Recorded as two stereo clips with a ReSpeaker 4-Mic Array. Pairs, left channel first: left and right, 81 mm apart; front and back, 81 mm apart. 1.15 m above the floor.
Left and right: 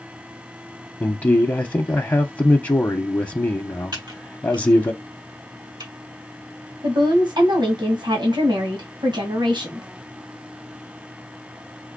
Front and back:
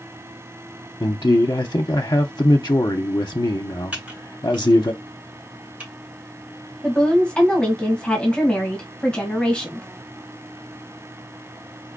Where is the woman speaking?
75° right, 1.5 m.